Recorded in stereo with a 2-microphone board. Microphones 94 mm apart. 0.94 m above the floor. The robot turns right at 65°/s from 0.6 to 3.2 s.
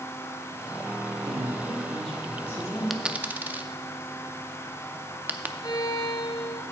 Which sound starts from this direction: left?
A violin, at 5.6 s.